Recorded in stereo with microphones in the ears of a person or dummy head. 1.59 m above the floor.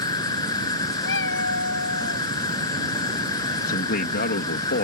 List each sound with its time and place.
0.0 s an insect: 20° left (ahead or behind)
1.0 s a cat meowing: 70° left (ahead or behind)
3.7 s a man speaking: 50° left (ahead or behind)